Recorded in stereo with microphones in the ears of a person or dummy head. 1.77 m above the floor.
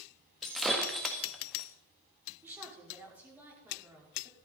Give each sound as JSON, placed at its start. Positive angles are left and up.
{"t": 0.4, "sound": "breaking glass", "side_deg": 5, "distance_m": 1.9}
{"t": 2.4, "sound": "a woman speaking", "side_deg": -10, "distance_m": 5.5}